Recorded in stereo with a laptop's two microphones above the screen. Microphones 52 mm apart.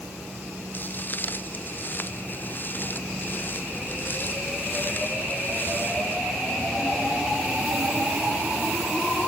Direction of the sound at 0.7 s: 40° left (ahead or behind).